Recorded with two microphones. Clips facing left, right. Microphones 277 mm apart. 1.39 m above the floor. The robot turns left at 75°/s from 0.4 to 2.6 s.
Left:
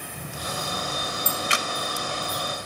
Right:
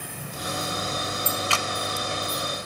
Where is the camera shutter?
20° left (ahead or behind), 0.7 m; by 1.6 s 10° left (ahead or behind), 0.7 m.